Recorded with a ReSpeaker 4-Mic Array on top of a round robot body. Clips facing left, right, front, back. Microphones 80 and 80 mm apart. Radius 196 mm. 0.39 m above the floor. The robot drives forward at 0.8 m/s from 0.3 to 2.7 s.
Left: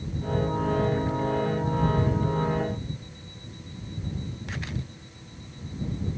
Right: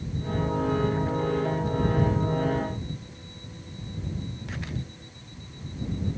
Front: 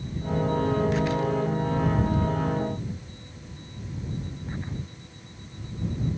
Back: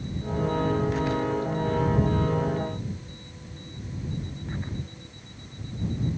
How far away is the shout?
No shout in this recording.